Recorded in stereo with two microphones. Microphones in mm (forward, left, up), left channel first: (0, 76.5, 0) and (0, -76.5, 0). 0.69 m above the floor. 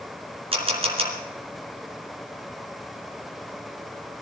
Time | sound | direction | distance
0.5 | a camera shutter | 40° right (ahead or behind) | 3 m